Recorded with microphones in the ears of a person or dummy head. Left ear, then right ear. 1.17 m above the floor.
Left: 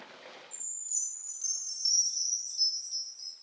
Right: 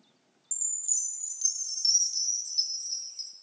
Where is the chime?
35° right (ahead or behind), 1.9 m.